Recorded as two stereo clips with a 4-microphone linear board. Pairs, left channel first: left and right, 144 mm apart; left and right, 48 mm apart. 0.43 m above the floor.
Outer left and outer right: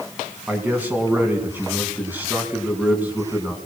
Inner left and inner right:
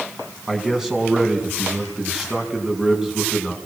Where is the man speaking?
10° right (ahead or behind), 4 m.